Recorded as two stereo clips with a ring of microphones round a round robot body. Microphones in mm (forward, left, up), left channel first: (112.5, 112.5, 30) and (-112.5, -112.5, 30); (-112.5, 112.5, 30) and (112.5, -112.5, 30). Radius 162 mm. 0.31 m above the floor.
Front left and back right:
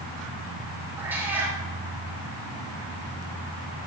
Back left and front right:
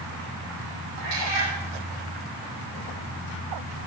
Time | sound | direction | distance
1.0 | a cat meowing | 50° right | 4.5 m